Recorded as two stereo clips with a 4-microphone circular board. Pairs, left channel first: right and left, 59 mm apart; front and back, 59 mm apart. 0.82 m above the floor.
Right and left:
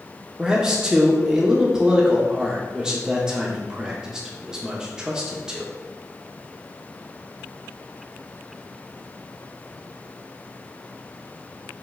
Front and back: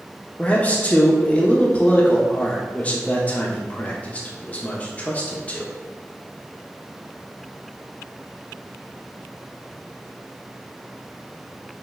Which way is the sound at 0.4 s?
25° left.